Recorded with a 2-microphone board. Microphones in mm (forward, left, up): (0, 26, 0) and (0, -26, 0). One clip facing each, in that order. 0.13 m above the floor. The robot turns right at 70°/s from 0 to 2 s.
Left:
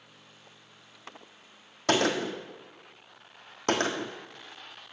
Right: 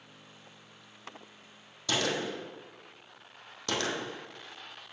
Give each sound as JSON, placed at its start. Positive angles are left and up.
{"t": 1.9, "sound": "a gunshot", "side_deg": 45, "distance_m": 1.3}